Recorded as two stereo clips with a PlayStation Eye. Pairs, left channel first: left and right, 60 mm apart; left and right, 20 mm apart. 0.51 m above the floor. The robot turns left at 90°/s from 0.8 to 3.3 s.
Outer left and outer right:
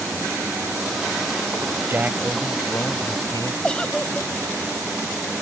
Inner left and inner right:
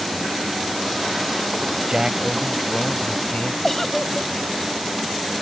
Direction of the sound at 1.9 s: 135° right.